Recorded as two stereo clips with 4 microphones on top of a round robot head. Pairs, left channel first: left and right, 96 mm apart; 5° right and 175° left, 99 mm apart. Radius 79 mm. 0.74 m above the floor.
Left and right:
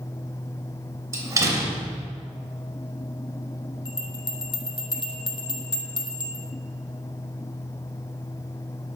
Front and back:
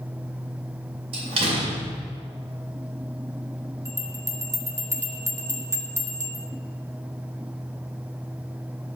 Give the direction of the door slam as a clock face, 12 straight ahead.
5 o'clock.